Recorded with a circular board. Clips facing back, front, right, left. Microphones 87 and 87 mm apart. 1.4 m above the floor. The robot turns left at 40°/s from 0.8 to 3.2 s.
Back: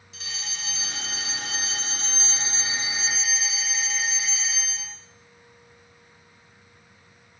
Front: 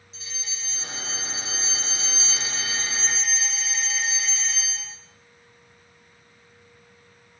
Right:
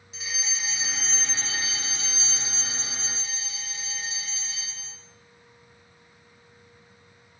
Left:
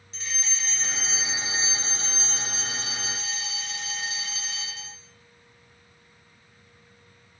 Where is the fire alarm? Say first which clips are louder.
Back 4 dB, even; 170° right, 2 m; by 5.0 s 95° left, 2 m.